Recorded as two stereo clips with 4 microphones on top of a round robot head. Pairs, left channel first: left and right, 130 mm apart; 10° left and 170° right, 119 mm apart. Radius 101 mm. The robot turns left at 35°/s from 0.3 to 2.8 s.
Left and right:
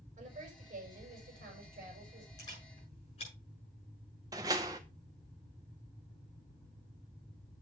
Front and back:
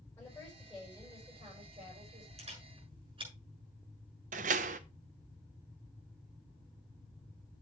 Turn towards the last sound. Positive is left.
turn(degrees=-160)